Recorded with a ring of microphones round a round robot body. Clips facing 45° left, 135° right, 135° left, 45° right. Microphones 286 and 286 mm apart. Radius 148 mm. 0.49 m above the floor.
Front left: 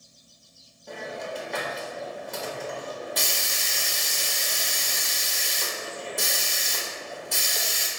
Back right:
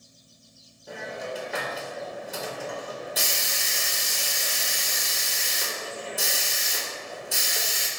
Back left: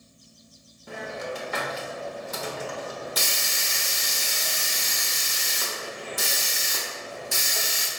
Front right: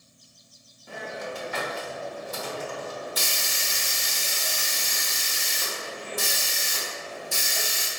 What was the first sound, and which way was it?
A hiss, 140° left.